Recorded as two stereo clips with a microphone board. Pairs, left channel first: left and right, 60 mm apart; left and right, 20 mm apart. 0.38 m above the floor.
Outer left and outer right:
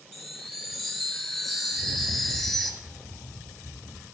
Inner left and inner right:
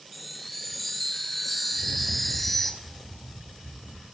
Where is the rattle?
75° left (ahead or behind), 3 m.